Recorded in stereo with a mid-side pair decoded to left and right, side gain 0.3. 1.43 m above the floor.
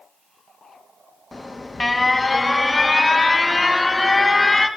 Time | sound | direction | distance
1.3 | an alarm | 25° left | 1.7 m